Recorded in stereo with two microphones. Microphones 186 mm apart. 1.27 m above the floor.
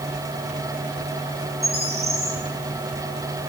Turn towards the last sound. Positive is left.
turn(degrees=-60)  # may be behind; listen again after turning